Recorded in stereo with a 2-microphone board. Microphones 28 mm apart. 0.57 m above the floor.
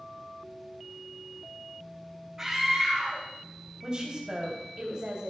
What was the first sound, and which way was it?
A scream, 20° right (ahead or behind).